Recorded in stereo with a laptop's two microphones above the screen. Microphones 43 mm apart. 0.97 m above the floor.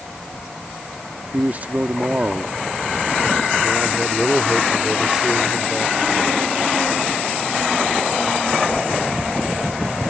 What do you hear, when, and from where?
1.3 s a man speaking: 45° right (ahead or behind); by 6.5 s 10° right (ahead or behind)